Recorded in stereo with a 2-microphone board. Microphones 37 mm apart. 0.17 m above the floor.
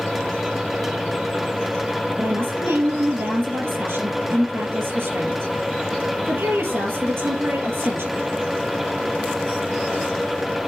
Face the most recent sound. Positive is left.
turn(degrees=-70)  # may be behind; listen again after turning